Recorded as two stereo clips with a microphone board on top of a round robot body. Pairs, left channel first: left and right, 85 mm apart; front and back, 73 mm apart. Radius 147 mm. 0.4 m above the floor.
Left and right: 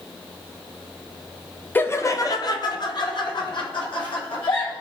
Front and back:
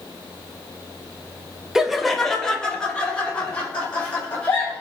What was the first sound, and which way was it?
Laughter, 110° left.